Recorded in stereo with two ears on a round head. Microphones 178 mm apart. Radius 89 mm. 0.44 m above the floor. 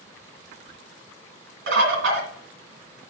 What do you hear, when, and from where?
1.7 s a bird: 60° right (ahead or behind), 1.9 m